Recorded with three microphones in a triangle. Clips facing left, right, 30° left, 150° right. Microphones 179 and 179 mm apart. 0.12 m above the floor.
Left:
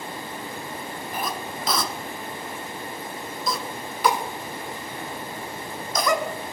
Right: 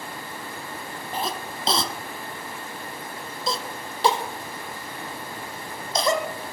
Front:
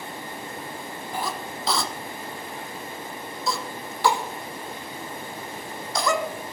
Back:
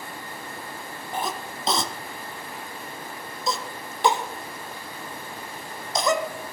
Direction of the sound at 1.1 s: 105° right.